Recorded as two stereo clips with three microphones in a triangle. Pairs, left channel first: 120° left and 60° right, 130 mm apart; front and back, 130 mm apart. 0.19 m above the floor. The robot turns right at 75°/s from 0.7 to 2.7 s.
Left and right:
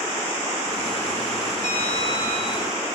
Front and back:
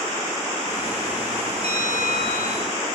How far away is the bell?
About 8.5 m.